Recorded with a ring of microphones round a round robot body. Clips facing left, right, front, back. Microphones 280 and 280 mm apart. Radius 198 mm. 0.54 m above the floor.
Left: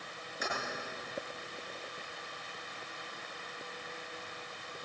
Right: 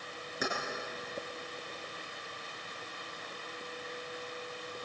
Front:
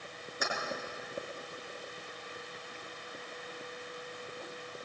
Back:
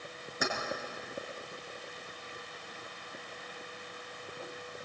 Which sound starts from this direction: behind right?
Keys jangling, at 0.4 s.